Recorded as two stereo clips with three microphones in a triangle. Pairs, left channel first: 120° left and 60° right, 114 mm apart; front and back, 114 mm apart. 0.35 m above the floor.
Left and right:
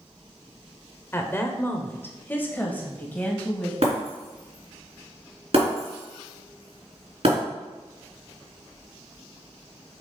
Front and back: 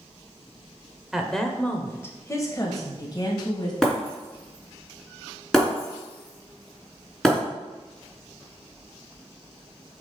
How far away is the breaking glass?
About 3 m.